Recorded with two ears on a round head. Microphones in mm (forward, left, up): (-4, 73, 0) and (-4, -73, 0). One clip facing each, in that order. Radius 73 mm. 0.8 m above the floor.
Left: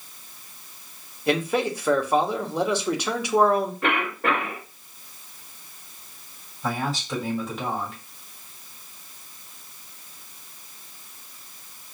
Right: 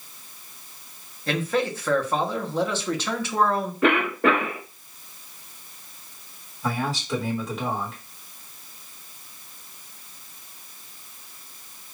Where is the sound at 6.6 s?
Centre (ahead or behind), 1.5 m.